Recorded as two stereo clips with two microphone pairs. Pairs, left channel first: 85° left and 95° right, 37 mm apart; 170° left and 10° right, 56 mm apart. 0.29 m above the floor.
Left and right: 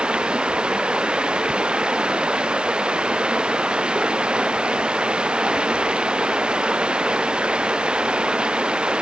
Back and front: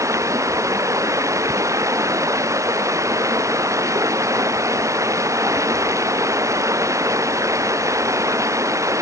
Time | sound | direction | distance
0.0 | running water | 30° right | ?